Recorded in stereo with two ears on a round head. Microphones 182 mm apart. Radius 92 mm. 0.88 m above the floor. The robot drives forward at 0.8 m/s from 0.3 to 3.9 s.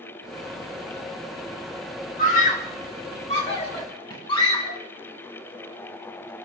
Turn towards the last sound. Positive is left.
turn(degrees=25)  # may be behind; listen again after turning